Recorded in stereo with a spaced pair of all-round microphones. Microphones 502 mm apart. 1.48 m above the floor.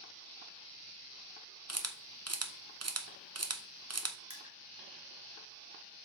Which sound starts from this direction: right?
A camera shutter, at 1.7 s.